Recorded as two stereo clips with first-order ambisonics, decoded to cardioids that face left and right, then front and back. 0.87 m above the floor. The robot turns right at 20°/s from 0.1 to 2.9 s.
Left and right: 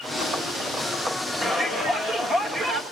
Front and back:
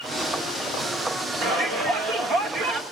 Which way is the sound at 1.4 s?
170° right.